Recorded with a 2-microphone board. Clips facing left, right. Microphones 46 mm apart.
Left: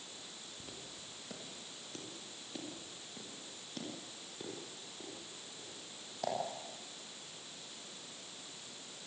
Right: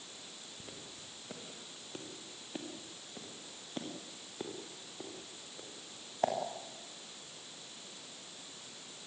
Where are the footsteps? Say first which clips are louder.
Right 1 dB; 15° right (ahead or behind), 4.5 m; by 6.3 s 40° right (ahead or behind), 6.5 m.